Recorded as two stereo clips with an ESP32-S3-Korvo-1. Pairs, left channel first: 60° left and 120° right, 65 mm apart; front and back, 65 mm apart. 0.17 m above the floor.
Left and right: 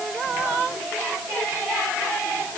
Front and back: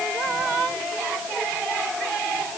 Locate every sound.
Only background noise.